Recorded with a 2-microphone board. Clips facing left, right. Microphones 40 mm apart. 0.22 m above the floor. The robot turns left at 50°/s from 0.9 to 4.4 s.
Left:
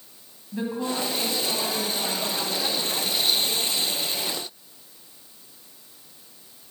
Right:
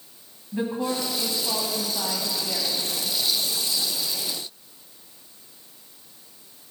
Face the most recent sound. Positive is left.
turn(degrees=160)